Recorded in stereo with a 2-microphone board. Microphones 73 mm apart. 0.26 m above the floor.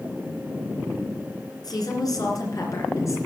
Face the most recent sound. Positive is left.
turn(degrees=45)  # may be behind; listen again after turning